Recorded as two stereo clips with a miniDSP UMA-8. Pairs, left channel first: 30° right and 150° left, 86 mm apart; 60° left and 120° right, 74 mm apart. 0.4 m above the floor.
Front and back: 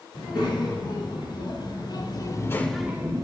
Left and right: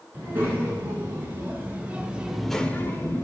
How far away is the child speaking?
About 3.5 m.